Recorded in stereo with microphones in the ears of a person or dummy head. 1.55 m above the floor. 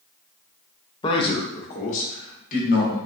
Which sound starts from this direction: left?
A man speaking, at 1.0 s.